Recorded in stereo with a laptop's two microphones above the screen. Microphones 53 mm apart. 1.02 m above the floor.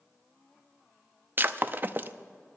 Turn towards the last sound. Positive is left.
turn(degrees=-40)  # may be behind; listen again after turning